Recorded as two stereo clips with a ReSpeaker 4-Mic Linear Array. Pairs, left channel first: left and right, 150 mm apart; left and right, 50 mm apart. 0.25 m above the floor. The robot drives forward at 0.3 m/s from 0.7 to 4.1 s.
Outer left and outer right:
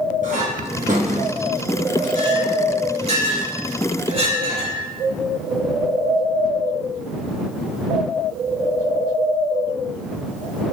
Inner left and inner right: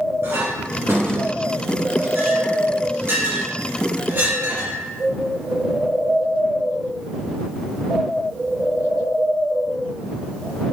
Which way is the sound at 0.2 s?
60° right (ahead or behind).